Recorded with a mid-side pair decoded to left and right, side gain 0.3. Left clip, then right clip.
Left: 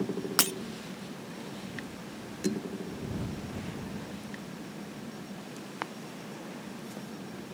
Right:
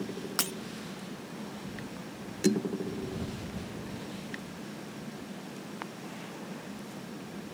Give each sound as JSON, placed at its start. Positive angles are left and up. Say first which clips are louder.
{"t": 0.4, "sound": "breaking glass", "louder": "left 5 dB", "azimuth_deg": 55}